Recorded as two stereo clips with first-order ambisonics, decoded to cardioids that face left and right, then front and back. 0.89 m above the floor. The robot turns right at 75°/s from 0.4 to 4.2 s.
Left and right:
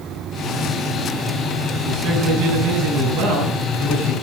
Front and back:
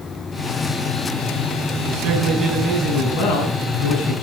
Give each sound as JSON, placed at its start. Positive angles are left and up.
{"t": 1.9, "sound": "a man speaking", "azimuth_deg": -155, "distance_m": 6.5}